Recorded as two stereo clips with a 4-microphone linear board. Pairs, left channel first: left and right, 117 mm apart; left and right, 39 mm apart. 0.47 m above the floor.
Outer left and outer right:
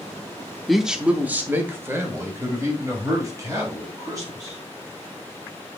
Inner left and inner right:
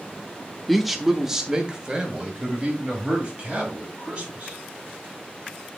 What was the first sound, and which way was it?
A man speaking, centre (ahead or behind).